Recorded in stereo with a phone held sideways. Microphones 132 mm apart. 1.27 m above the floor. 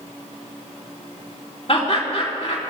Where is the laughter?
45° left (ahead or behind), 4.5 m.